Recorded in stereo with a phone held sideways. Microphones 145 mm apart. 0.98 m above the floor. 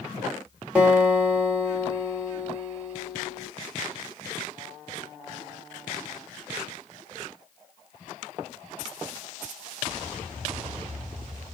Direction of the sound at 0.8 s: 10° right (ahead or behind).